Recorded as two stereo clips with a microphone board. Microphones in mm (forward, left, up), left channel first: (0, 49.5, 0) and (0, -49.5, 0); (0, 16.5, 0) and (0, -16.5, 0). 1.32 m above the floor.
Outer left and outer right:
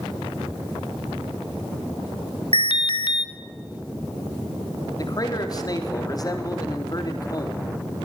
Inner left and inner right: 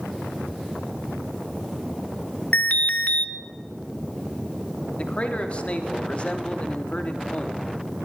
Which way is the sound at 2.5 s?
55° left (ahead or behind).